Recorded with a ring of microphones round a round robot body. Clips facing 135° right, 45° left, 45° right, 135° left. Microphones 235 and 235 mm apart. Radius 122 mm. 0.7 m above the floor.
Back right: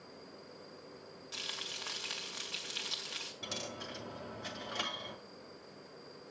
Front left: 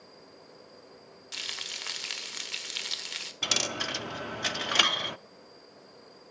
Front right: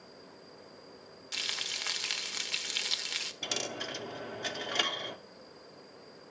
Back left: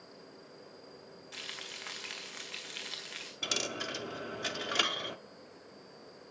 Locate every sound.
1.3 s frying: 10° right, 1.6 m
3.4 s a dropped coin: 55° left, 0.6 m